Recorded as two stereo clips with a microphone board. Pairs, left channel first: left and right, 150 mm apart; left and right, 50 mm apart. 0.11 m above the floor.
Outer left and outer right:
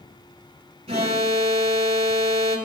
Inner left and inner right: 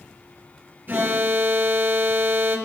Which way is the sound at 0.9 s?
40° right (ahead or behind).